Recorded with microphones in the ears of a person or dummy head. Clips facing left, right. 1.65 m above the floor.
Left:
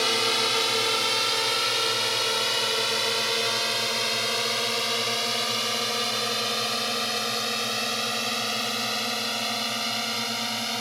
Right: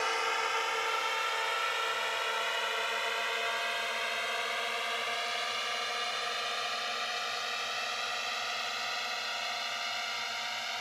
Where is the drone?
55° left (ahead or behind); by 10.8 s 70° left (ahead or behind).